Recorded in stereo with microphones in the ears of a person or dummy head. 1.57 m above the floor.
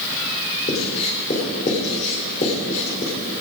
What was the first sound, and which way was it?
Writing, 35° left (ahead or behind).